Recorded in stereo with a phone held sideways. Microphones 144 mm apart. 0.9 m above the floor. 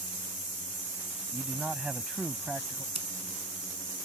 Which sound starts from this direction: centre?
A man speaking, at 1.3 s.